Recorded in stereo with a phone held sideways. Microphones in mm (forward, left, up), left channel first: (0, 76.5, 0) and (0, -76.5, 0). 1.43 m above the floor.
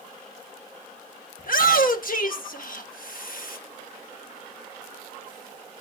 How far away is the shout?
About 1.7 m.